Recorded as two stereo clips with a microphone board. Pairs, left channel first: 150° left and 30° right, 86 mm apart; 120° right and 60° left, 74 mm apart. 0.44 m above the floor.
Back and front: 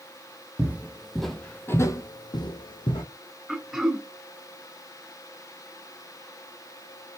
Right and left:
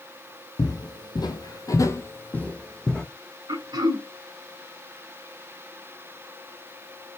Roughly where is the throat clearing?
Ahead left.